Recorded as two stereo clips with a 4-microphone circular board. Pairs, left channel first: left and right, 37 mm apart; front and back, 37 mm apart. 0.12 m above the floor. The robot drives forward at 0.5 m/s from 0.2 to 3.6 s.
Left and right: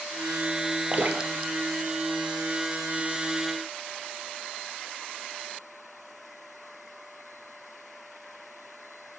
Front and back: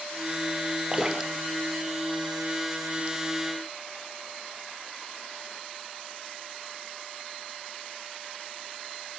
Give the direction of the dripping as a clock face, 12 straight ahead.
4 o'clock.